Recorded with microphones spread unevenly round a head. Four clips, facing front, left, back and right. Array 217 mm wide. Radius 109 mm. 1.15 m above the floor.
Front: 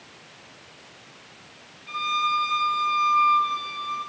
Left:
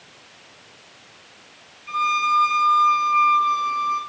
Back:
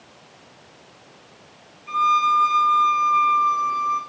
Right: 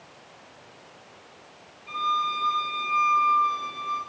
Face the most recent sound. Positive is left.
turn(degrees=-175)